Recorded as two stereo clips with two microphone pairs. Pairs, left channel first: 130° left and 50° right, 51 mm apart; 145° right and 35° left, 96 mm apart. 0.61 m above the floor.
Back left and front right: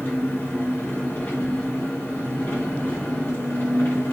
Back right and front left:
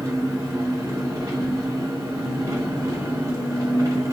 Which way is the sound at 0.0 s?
90° left.